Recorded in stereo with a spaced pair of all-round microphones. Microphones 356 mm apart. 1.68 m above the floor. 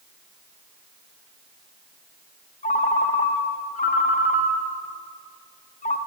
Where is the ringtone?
20° left (ahead or behind), 0.7 m.